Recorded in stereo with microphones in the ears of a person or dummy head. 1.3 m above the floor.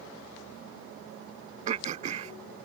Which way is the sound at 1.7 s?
50° right (ahead or behind).